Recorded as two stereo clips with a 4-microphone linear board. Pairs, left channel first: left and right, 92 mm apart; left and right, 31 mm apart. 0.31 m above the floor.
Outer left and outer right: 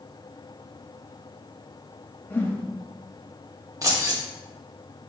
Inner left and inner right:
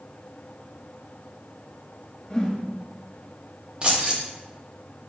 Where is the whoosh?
20° left (ahead or behind), 0.5 m.